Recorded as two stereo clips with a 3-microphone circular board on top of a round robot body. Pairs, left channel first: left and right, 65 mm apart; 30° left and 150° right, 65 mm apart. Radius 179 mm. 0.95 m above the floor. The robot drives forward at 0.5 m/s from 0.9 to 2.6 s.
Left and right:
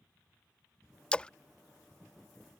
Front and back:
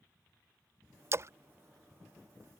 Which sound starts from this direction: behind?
A splash, at 1.1 s.